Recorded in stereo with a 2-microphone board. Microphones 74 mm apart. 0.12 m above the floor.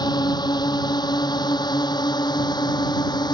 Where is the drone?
70° left (ahead or behind); by 3.3 s 75° left (ahead or behind).